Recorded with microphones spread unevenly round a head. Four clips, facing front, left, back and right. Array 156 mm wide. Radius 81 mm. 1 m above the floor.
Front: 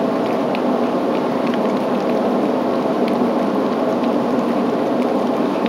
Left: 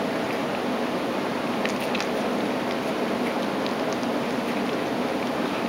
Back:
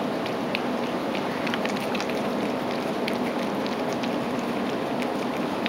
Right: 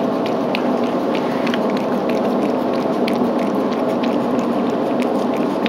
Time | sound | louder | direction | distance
0.0 | a fan | right 8 dB, front 10 dB | 35° right | ?